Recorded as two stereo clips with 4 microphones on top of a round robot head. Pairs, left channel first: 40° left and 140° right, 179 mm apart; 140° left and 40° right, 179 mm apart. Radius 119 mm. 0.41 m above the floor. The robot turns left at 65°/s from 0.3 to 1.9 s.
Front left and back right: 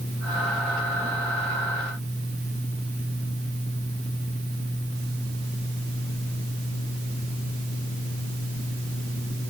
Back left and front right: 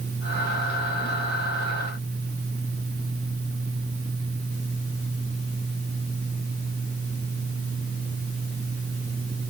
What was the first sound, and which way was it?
Only background noise.